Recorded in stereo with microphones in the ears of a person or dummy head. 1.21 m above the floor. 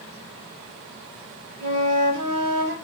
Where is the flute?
80° right, 5 m.